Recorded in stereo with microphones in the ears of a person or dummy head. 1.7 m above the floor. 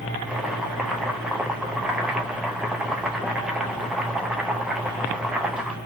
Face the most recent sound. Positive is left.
turn(degrees=-5)  # may be behind; listen again after turning